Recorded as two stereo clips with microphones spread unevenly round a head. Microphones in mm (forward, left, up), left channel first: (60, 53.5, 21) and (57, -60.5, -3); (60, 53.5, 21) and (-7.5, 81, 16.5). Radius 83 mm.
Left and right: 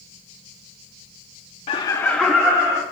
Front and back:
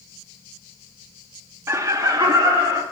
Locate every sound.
1.7 s laughter: 130° left, 0.6 m; by 2.8 s 155° right, 1.3 m